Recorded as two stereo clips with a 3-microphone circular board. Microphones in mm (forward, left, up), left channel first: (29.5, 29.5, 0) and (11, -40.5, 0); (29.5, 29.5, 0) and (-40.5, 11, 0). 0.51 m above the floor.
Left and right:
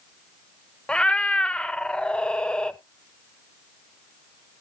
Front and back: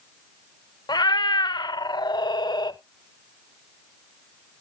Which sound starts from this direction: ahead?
A cat meowing, at 0.9 s.